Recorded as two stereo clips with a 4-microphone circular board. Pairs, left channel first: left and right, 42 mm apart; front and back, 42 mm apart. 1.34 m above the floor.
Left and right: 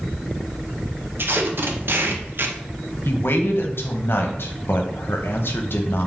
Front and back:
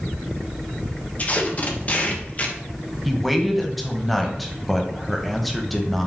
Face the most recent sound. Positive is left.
turn(degrees=85)